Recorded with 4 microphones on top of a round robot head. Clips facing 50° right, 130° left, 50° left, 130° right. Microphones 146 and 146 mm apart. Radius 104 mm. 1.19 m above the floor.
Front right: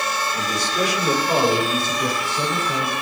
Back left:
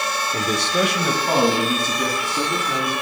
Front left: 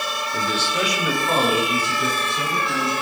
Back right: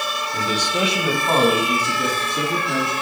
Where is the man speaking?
135° left, 0.9 m; by 2.9 s 175° right, 4.5 m.